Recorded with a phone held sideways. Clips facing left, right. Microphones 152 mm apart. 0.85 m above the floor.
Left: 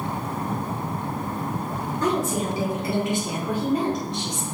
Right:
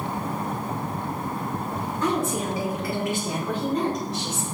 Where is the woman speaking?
40° left (ahead or behind), 3 m; by 4.4 s 10° right (ahead or behind), 2.5 m.